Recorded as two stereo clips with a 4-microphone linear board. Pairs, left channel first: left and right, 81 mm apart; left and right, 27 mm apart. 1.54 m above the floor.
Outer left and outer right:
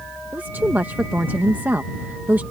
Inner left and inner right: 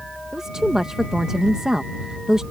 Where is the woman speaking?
25° right (ahead or behind).